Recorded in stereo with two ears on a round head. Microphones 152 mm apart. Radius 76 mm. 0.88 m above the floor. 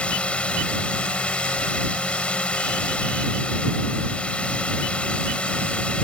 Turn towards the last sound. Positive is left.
turn(degrees=5)  # may be behind; listen again after turning